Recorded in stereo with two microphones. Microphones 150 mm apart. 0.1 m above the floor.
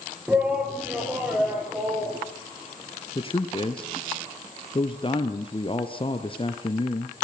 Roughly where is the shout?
Centre.